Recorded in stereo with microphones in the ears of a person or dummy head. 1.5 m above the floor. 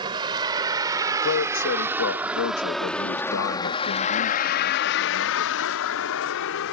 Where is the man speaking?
80° left.